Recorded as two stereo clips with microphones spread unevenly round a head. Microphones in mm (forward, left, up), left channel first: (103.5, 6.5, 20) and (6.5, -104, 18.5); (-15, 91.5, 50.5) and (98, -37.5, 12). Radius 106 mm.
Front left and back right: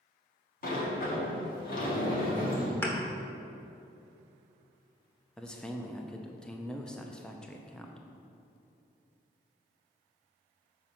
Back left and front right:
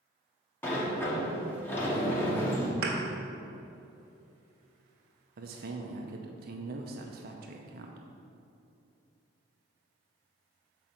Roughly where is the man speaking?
Ahead right.